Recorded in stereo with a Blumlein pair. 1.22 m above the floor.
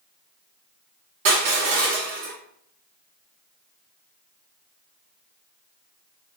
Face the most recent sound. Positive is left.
turn(degrees=-55)